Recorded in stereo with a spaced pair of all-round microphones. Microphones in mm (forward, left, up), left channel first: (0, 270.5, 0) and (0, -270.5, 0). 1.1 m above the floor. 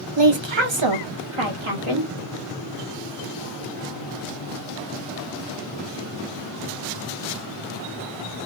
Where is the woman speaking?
50° right (ahead or behind), 0.8 m; by 2.1 s 65° right (ahead or behind), 1.8 m.